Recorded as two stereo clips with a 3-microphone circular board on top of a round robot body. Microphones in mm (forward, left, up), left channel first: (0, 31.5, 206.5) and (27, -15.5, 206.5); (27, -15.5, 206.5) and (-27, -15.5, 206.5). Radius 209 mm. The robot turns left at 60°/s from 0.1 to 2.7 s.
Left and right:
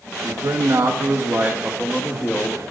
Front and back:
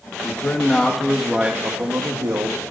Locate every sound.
0.2 s a man speaking: 40° right, 1.3 m; by 2.6 s straight behind, 1.3 m